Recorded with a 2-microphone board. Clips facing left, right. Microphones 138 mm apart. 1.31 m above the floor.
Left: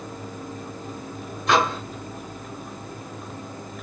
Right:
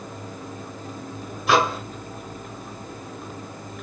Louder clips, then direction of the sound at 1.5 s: Right 1 dB; 5° right (ahead or behind).